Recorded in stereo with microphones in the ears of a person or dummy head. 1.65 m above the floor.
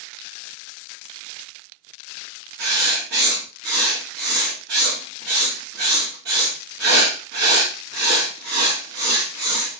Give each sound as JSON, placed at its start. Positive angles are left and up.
{"t": 2.6, "sound": "writing", "side_deg": -65, "distance_m": 1.7}